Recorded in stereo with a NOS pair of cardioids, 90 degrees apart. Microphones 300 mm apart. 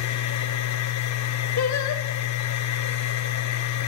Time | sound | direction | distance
0.0 | a machine running | 70° left | 4 m
1.6 | singing | 70° left | 4 m